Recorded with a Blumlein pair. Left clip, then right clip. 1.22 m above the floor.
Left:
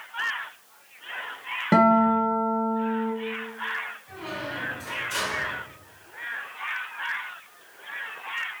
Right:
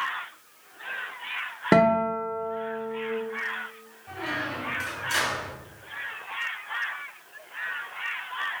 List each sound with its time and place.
1.7 s a guitar: 70° right, 0.9 m
4.1 s a squeak: 65° right, 2.0 m